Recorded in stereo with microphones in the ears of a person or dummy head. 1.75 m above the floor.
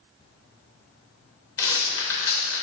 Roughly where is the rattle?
Centre.